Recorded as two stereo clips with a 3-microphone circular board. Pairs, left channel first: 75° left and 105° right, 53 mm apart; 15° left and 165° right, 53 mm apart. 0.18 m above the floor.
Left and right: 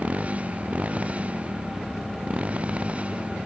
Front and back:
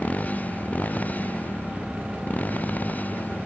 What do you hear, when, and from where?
0.0 s a motorcycle: 45° right; by 3.5 s 40° right